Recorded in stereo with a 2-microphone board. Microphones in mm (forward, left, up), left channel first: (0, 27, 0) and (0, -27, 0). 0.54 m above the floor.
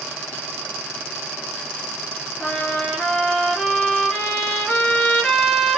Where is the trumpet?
5° left (ahead or behind), 1.8 m.